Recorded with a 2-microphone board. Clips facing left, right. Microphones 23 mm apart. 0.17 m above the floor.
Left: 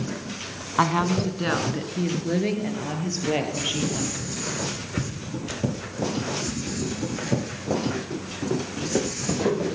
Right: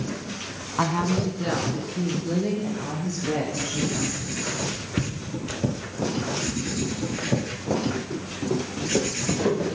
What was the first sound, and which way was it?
A woman speaking, 25° left (ahead or behind).